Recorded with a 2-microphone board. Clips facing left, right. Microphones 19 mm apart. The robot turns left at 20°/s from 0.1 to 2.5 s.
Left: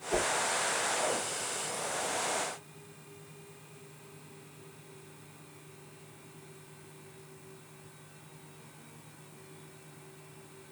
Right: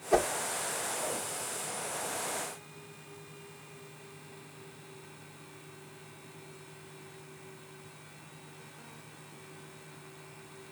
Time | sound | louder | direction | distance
0.1 | a whoosh | right 4 dB | 60° right (ahead or behind) | 1.6 m